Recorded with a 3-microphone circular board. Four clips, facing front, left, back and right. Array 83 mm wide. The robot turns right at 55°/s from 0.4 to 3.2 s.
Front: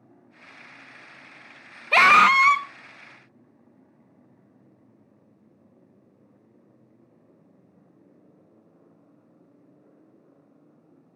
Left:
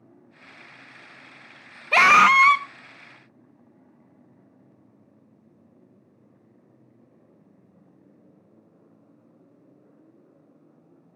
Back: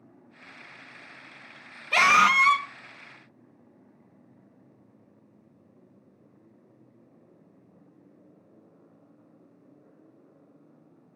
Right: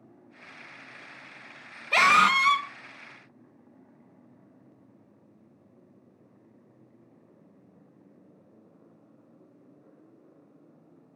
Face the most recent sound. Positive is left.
turn(degrees=100)